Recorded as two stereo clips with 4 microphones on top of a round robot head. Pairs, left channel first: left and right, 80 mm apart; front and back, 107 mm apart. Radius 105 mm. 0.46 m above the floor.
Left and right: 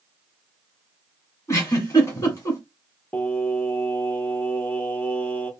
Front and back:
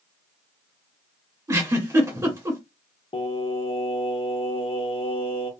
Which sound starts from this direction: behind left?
A giggle, at 1.5 s.